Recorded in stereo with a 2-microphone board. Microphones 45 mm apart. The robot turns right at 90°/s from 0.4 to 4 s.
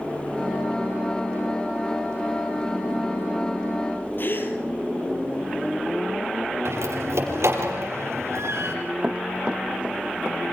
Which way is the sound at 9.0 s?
25° right (ahead or behind).